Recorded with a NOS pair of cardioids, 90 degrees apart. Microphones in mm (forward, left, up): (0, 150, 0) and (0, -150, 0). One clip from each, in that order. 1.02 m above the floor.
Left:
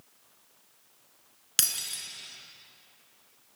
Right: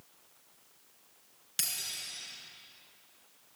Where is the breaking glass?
55° left, 5 m.